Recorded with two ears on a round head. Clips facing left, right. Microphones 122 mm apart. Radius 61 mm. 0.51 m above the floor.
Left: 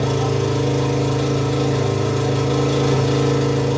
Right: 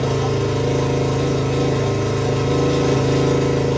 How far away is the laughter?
No laughter in this recording.